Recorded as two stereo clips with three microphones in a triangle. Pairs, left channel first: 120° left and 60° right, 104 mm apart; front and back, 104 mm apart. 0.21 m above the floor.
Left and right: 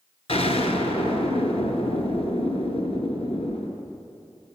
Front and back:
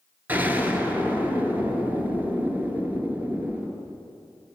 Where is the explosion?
105° left, 0.8 m.